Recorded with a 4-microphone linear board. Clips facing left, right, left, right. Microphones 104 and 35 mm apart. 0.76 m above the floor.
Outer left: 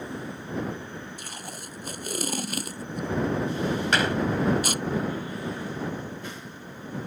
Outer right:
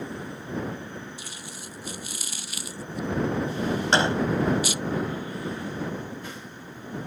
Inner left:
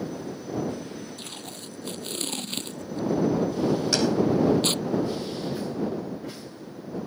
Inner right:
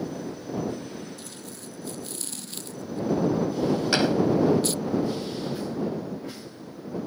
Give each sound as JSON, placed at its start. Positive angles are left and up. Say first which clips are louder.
{"t": 1.2, "sound": "tape being pulled", "louder": "outer left 2 dB, inner left 2 dB", "side_deg": 55}
{"t": 3.9, "sound": "a gunshot", "louder": "outer right 3 dB, inner right 3 dB", "side_deg": -30}